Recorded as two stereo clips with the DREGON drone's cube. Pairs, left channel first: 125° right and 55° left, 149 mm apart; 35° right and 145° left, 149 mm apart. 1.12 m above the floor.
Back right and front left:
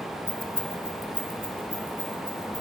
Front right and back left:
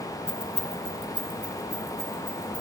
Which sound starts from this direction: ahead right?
Keys jangling, at 0.3 s.